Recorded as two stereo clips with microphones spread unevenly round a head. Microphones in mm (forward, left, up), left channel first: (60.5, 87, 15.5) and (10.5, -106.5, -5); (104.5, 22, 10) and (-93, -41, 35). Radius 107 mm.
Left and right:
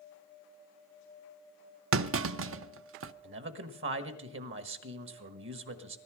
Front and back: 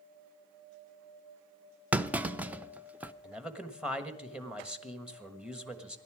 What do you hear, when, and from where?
1.9 s a clunk: 80° right, 0.5 m
3.2 s a man speaking: 75° right, 1.4 m